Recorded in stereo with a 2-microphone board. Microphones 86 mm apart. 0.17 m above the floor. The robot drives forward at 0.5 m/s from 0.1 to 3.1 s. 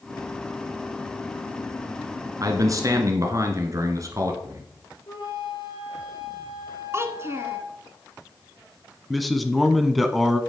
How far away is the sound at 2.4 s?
About 2.0 m.